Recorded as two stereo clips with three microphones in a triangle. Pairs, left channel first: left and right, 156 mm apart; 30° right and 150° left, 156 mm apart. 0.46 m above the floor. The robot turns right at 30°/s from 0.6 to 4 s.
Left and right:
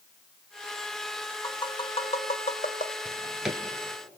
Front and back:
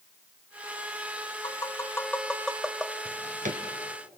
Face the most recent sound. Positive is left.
turn(degrees=-160)